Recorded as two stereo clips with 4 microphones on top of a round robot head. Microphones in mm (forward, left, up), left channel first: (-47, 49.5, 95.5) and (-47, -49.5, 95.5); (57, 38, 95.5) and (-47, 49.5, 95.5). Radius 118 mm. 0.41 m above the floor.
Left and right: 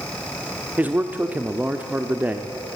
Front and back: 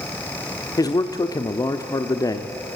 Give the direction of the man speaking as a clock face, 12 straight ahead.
1 o'clock.